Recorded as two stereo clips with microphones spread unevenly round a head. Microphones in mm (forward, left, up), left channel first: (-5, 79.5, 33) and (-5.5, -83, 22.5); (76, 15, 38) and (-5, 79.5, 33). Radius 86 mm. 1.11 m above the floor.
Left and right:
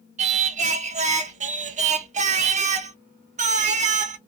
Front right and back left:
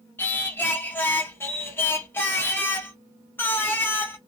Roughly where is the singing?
Right.